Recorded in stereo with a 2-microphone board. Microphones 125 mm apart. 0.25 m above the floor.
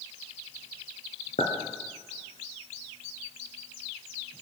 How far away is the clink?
About 2.5 m.